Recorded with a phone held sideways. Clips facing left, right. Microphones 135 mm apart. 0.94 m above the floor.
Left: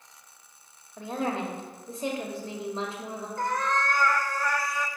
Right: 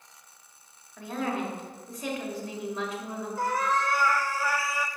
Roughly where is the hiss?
No hiss in this recording.